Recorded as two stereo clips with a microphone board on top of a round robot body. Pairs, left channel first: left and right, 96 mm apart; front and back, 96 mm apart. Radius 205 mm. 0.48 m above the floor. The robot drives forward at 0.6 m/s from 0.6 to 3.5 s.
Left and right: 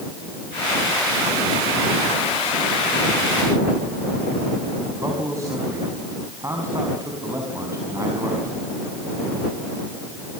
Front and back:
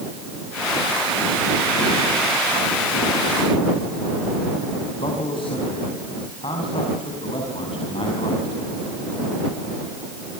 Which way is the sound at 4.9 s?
30° right.